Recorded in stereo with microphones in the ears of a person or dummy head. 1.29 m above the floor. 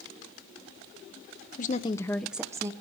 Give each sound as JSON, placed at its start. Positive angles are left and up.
{"t": 1.6, "sound": "a woman speaking", "side_deg": 40, "distance_m": 0.6}